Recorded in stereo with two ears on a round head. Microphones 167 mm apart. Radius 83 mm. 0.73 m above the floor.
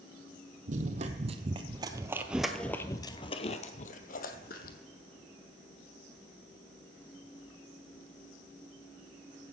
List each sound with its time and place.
0.7 s running footsteps: 45° right (ahead or behind), 1.3 m; by 4.8 s 55° left (ahead or behind), 1.4 m